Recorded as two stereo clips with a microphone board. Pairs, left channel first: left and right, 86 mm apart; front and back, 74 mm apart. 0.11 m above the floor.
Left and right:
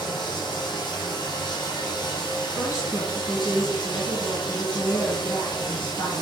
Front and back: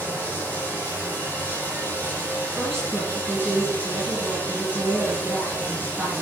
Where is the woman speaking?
80° left, 1.6 m.